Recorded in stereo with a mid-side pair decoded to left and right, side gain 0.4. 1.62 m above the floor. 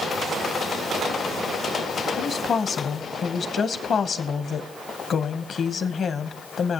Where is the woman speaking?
55° left, 1.1 m.